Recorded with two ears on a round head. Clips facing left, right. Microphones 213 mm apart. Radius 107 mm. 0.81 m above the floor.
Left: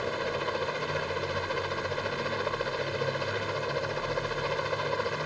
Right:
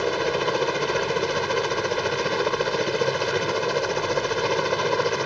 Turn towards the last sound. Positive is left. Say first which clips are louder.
# right 8 dB
turn(degrees=-65)  # may be behind; listen again after turning